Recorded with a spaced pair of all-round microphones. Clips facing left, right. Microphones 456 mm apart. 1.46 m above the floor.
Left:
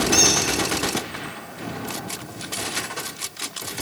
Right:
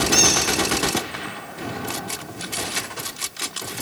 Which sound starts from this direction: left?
A squeak, at 0.1 s.